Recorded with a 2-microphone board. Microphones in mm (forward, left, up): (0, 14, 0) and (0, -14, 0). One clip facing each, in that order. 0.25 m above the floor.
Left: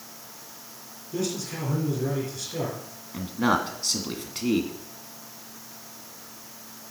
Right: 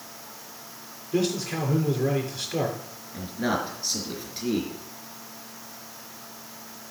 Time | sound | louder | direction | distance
1.1 | a man speaking | right 4 dB | 20° right (ahead or behind) | 3 m
3.1 | a man speaking | left 3 dB | 60° left (ahead or behind) | 1.8 m